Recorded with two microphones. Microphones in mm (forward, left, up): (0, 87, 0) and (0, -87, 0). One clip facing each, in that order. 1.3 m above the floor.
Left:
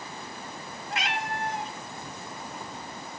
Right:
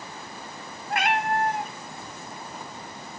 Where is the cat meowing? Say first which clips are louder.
Right 8 dB; 55° right (ahead or behind), 0.8 m.